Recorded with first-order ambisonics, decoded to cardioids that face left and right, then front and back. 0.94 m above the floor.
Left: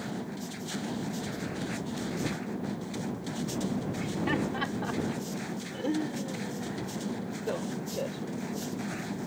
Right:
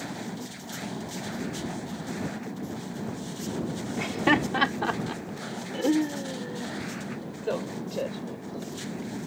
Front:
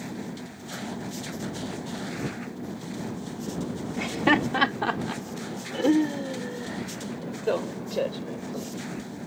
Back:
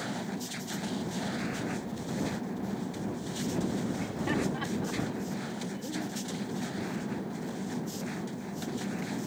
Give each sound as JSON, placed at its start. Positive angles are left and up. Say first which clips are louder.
{"t": 4.0, "sound": "laughter", "louder": "right 9 dB, front 13 dB", "azimuth_deg": -40}